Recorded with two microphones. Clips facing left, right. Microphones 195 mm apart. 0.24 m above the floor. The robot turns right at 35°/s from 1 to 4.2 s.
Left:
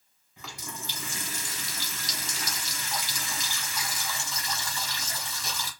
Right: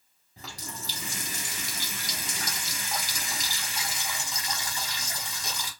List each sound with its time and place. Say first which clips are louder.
0.4 s a running tap: even; 135° right, 1.1 m; by 5.7 s 20° right, 1.1 m